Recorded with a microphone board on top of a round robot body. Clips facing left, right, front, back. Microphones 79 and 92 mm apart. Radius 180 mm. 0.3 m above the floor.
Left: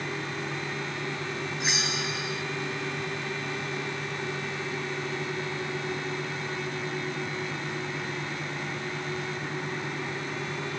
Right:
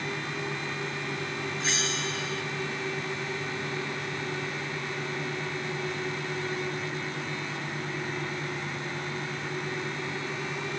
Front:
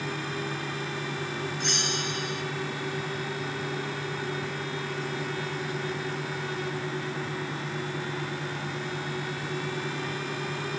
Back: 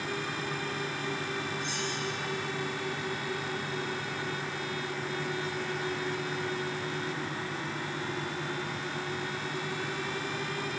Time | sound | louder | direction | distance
1.6 | a bell | left 1 dB, front 3 dB | 15° left | 2.5 m